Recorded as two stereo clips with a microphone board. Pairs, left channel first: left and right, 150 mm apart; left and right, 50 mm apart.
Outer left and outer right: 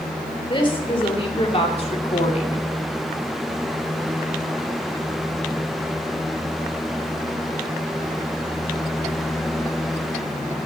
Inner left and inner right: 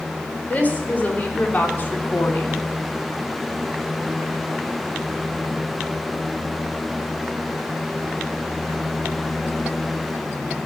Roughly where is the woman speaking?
Left.